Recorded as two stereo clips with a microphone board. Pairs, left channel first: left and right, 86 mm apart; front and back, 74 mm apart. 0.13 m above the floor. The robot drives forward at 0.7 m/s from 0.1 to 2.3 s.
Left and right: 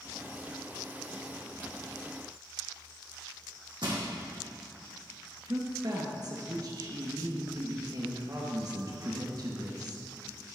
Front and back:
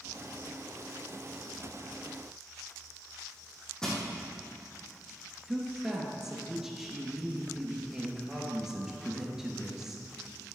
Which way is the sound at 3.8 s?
80° right.